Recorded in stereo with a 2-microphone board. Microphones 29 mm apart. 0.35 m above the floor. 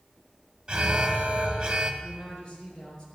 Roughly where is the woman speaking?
Left.